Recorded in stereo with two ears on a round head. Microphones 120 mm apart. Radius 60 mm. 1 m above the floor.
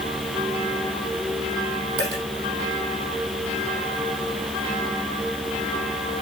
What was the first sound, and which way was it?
A dropped coin, 30° right (ahead or behind).